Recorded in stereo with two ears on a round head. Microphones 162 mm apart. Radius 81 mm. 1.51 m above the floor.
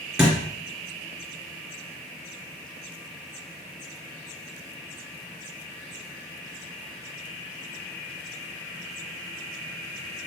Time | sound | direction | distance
0.2 | a thud | 5° right (ahead or behind) | 2.5 m